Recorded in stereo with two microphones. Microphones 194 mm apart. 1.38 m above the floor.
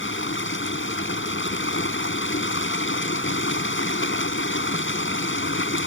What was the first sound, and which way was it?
Running water, 80° left.